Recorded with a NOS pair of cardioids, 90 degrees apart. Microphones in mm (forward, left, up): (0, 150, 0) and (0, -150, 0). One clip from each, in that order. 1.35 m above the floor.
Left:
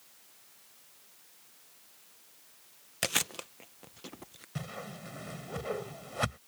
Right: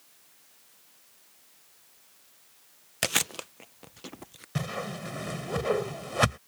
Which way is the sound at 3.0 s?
15° right.